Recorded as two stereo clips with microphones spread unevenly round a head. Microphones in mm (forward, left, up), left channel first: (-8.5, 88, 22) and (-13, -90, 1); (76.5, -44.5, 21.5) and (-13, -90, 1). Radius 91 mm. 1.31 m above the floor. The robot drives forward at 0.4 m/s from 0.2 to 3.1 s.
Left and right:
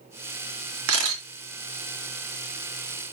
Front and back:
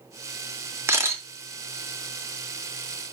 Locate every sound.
0.9 s a camera shutter: 85° right, 3.5 m; by 1.2 s 90° right, 3.5 m